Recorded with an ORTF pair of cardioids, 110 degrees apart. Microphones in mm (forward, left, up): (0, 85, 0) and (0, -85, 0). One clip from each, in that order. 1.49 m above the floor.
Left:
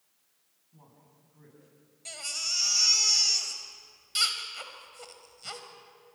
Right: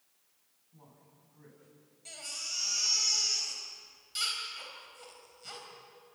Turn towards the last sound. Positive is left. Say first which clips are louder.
# left 7 dB
turn(degrees=40)